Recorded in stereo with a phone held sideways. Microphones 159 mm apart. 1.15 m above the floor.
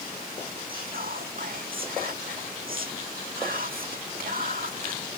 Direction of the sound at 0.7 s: 70° right (ahead or behind).